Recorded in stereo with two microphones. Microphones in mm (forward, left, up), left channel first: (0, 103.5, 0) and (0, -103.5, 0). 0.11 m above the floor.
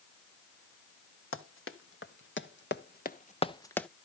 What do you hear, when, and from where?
1.3 s running footsteps: 80° left, 2.5 m; by 3.9 s 5° left (ahead or behind), 1.1 m